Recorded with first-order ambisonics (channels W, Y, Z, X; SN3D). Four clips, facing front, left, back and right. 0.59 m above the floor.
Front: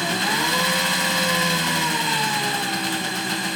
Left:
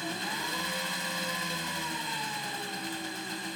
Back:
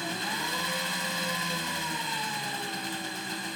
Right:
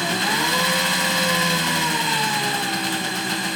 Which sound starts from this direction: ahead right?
An engine running, at 0.0 s.